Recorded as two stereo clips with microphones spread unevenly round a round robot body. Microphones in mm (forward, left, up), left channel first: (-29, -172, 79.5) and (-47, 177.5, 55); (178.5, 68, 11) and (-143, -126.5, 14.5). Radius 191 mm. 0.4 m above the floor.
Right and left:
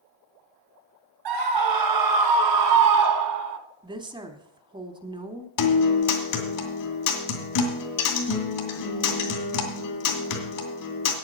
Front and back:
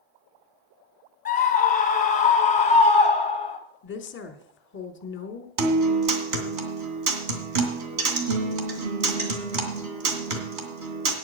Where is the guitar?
120° right, 2.5 m.